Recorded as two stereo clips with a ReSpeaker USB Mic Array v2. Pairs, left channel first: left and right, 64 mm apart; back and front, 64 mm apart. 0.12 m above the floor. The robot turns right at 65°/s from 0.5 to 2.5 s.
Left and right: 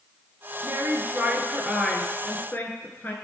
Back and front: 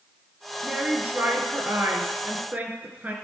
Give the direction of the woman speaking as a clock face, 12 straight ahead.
2 o'clock.